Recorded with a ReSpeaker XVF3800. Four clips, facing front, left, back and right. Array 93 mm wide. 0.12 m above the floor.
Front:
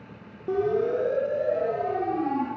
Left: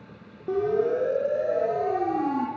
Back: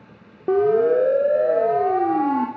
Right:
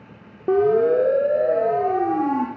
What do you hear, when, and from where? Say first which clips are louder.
0.5 s a siren: right 7 dB, back 7 dB; 135° right, 3 m; by 2.5 s 155° right, 4 m